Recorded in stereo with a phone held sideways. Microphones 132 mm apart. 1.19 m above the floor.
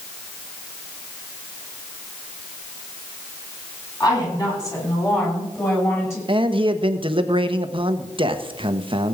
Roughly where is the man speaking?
Right.